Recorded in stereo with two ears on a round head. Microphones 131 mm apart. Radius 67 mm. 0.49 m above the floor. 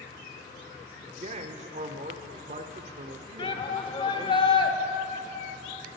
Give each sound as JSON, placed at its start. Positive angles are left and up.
{"t": 1.2, "sound": "a man speaking", "side_deg": -45, "distance_m": 1.0}
{"t": 3.4, "sound": "a shout", "side_deg": 35, "distance_m": 1.1}